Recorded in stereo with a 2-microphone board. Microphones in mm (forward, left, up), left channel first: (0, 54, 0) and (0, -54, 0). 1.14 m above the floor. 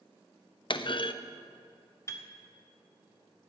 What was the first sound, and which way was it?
A clunk, 50° left (ahead or behind).